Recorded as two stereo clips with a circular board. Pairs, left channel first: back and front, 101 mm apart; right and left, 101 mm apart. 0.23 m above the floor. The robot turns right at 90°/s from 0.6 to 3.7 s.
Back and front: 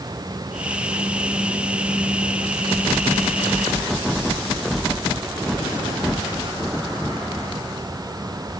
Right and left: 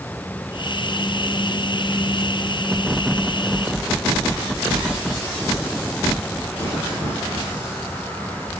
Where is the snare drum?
I don't hear a snare drum.